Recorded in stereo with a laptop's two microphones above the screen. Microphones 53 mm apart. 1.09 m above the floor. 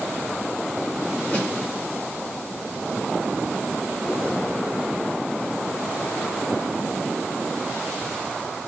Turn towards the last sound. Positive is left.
turn(degrees=20)  # may be behind; listen again after turning